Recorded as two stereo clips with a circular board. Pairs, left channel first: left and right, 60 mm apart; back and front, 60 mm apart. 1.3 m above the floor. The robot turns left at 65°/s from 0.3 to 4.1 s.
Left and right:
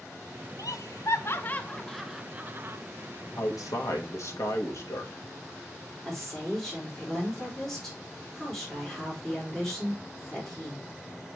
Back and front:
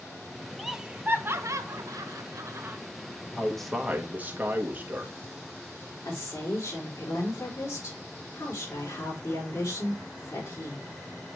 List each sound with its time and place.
0.6 s laughter: 90° left, 0.9 m; by 2.8 s 55° right, 0.9 m
3.4 s a man speaking: 110° left, 1.3 m; by 5.1 s 60° left, 1.3 m
6.0 s a woman speaking: 175° left, 4.5 m